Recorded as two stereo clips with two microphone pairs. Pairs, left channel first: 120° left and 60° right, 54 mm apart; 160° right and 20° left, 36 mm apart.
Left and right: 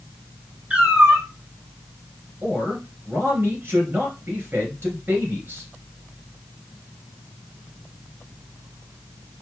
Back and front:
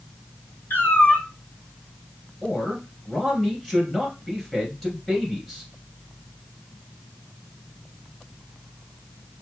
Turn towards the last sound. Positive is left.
turn(degrees=-80)